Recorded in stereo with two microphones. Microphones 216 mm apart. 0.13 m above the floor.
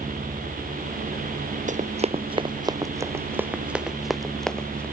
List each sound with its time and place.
1.7 s running footsteps: 35° right (ahead or behind); by 4.8 s 5° left (ahead or behind)